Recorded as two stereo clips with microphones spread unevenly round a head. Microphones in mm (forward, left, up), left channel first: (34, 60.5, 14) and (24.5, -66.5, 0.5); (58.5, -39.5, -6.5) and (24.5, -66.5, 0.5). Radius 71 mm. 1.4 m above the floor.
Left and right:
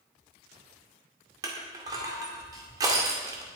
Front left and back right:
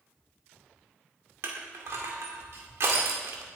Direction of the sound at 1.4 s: 160° right.